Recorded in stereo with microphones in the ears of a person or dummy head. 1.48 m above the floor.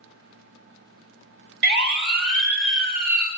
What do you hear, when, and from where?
1.6 s a siren: 55° right (ahead or behind), 4 m; by 3.3 s 50° right (ahead or behind), 5 m